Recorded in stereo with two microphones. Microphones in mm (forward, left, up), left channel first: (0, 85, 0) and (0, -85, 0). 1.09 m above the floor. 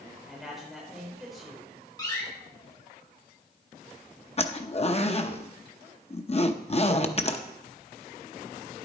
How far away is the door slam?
About 3.5 m.